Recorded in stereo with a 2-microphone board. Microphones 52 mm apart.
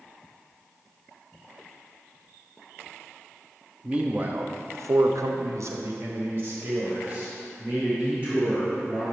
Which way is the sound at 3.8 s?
20° right (ahead or behind).